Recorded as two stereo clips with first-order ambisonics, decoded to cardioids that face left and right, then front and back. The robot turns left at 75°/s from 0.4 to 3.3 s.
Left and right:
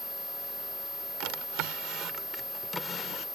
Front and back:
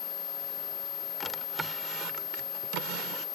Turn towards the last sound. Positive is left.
turn(degrees=130)